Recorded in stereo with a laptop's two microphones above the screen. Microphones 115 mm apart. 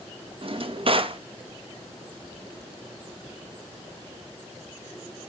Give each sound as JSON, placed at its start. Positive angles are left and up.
{"t": 0.4, "sound": "a drawer", "side_deg": -55, "distance_m": 0.5}